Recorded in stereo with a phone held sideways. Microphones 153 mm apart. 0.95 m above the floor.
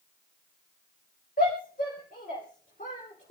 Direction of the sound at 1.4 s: 70° left (ahead or behind).